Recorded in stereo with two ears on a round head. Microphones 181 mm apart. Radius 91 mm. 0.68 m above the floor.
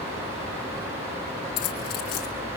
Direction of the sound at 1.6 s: 85° left.